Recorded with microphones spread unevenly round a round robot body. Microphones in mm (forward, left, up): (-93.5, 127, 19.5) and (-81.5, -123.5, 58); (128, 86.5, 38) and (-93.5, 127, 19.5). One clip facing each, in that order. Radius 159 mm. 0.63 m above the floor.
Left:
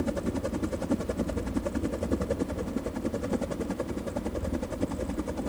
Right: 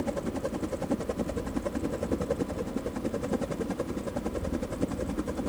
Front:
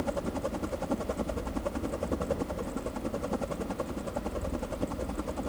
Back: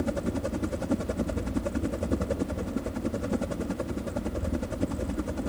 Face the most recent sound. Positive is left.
turn(degrees=-165)